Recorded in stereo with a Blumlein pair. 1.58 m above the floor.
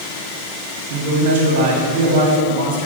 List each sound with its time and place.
0.9 s a man speaking: 50° right, 1.6 m